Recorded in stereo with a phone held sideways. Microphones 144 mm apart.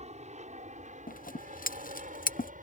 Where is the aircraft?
50° right (ahead or behind); by 2.6 s 65° right (ahead or behind).